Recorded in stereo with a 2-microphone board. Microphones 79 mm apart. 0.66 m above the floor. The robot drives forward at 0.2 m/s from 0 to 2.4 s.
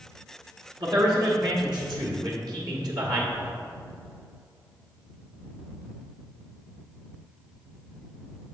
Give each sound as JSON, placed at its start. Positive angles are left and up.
{"t": 0.8, "sound": "a man speaking", "side_deg": -65, "distance_m": 1.6}